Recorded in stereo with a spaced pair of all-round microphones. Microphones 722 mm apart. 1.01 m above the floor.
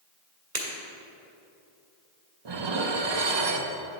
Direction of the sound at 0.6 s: 60° right (ahead or behind).